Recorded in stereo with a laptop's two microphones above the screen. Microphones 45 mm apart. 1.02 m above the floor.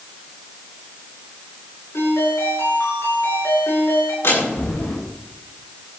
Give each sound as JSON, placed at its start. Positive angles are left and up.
{"t": 1.9, "sound": "a ringtone", "side_deg": 75, "distance_m": 9.0}
{"t": 4.2, "sound": "a door slam", "side_deg": 70, "distance_m": 7.0}